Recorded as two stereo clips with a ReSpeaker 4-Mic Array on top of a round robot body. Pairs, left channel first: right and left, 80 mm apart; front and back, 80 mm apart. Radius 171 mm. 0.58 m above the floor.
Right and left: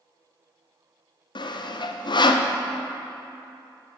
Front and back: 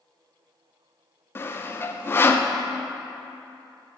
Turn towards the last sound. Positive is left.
turn(degrees=-65)